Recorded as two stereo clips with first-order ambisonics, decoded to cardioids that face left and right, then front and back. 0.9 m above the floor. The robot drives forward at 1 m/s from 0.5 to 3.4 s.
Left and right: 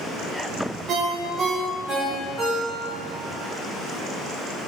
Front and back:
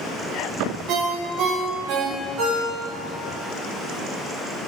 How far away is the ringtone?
About 1.1 m.